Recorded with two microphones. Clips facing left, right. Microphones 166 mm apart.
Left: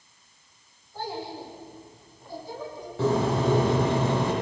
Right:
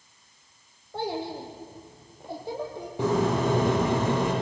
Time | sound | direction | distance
0.9 | a child speaking | 75° right (ahead or behind) | 6 m
3.0 | a bird | 15° right (ahead or behind) | 8.5 m